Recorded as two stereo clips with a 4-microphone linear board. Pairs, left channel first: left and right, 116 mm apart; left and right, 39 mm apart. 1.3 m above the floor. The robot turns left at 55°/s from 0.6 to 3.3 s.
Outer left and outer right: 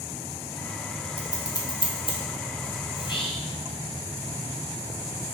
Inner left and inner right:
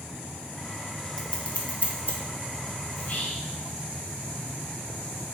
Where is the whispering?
35° left (ahead or behind), 0.6 m; by 3.5 s 55° left (ahead or behind), 0.6 m.